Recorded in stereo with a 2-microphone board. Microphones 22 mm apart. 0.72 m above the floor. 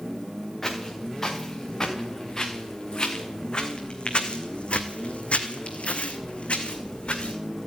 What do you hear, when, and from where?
0.6 s footsteps: 15° left (ahead or behind), 4 m; by 7.4 s 50° left (ahead or behind), 2.5 m